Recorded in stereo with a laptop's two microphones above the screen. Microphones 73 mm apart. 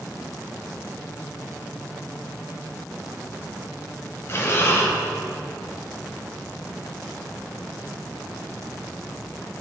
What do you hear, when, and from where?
4.3 s breathing: 35° left (ahead or behind), 0.8 m